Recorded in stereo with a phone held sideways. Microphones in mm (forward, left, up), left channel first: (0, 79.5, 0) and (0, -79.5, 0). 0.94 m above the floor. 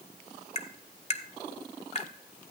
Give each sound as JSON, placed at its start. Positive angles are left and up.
{"t": 0.6, "sound": "tapping", "side_deg": 40, "distance_m": 0.9}